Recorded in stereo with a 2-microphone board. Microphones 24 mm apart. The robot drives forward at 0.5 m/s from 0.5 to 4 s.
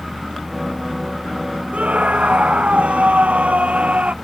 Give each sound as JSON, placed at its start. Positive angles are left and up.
{"t": 1.7, "sound": "a scream", "side_deg": -85}